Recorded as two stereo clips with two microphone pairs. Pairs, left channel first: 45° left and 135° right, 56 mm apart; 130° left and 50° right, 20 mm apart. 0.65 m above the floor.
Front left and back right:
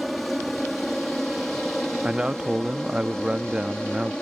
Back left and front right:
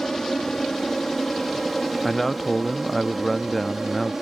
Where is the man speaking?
175° right.